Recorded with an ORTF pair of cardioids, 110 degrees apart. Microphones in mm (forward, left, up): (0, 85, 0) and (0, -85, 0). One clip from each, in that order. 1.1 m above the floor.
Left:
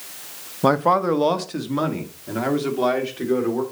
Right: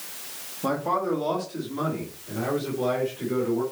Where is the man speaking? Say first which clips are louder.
Left 8 dB; 50° left, 0.8 m; by 3.6 s 70° left, 3 m.